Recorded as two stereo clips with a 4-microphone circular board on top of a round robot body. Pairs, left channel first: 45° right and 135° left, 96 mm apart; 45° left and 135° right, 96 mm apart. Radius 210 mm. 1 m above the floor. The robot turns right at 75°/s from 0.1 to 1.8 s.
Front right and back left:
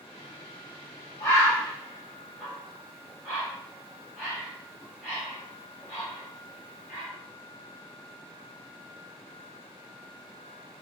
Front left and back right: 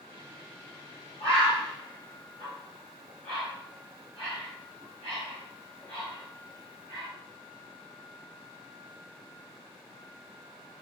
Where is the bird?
10° left, 0.7 m; by 7.1 s 55° left, 0.7 m.